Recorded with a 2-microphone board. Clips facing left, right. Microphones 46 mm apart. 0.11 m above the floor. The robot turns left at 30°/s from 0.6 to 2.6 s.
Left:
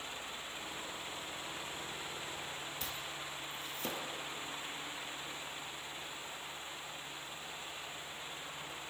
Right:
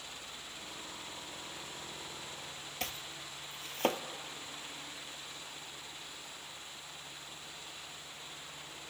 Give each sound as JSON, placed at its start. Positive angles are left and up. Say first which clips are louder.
{"t": 2.8, "sound": "chopping", "louder": "even", "side_deg": -60, "distance_m": 0.7}